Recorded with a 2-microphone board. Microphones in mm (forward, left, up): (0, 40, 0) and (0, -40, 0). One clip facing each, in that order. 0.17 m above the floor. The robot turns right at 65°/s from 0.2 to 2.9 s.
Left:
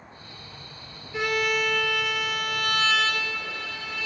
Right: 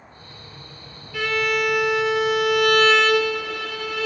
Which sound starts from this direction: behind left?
A violin, at 1.1 s.